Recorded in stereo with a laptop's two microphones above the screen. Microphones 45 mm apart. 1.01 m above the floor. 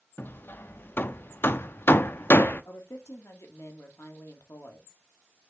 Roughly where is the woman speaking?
Left.